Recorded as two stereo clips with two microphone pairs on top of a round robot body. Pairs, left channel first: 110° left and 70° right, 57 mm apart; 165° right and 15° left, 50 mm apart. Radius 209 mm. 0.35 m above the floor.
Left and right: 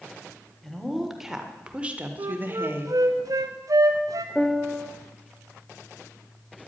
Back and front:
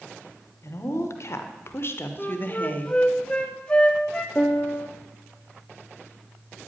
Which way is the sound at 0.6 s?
165° right.